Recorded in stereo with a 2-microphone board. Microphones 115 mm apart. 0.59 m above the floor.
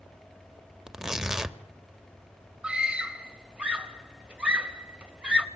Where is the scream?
10° right (ahead or behind), 3 m.